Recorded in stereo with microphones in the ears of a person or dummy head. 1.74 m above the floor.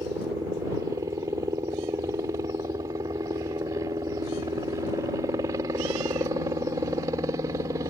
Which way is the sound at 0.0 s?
20° right (ahead or behind).